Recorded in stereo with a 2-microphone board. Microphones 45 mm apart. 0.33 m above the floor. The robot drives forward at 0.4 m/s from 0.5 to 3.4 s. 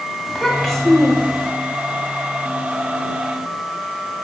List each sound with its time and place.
0.3 s a child speaking: centre (ahead or behind), 1.0 m